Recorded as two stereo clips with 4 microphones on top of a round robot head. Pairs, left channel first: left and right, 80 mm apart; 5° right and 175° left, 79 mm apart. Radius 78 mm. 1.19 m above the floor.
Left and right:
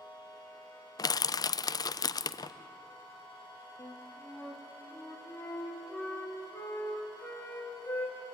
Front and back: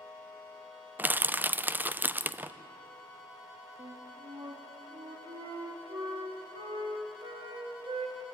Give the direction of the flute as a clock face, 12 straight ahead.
7 o'clock.